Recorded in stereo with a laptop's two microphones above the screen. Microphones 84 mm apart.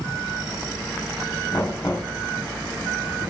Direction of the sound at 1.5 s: 45° left (ahead or behind).